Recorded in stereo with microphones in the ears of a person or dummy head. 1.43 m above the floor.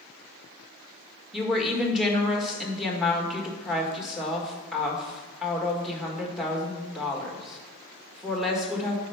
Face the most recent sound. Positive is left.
turn(degrees=5)  # may be behind; listen again after turning